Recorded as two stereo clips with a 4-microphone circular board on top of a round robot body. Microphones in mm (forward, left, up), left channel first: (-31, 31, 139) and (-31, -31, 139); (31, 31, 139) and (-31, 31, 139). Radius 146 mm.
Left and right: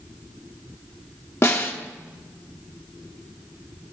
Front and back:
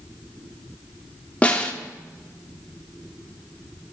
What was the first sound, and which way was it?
A snare drum, 65° left.